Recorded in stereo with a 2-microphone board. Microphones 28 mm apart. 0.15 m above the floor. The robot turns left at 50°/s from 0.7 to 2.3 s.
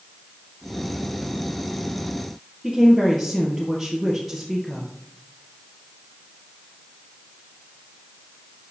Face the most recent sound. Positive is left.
turn(degrees=0)  # may be behind; listen again after turning